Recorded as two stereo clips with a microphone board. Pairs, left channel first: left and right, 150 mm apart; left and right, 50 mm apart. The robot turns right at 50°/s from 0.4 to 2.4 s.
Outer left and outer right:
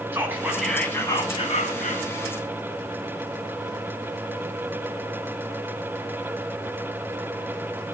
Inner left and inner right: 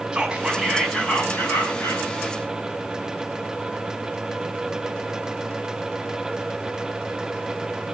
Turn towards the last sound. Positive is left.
turn(degrees=85)